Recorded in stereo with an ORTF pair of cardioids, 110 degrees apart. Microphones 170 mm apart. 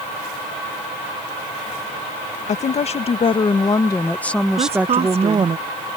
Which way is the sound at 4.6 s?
35° right.